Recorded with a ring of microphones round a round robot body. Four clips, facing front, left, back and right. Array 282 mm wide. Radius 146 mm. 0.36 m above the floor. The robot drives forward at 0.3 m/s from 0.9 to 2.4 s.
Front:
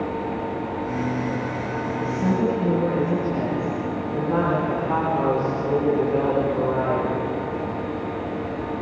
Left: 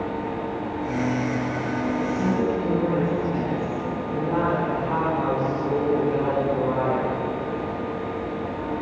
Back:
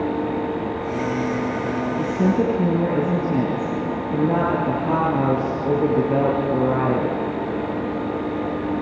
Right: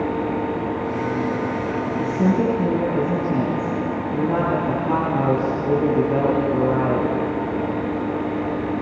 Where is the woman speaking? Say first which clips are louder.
Right 6 dB, back 2 dB; 155° right, 6.5 m.